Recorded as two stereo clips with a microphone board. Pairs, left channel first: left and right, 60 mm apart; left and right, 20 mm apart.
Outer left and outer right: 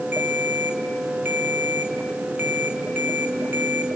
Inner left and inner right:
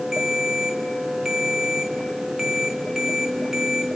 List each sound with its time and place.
0.1 s a ringtone: 30° right (ahead or behind), 4 m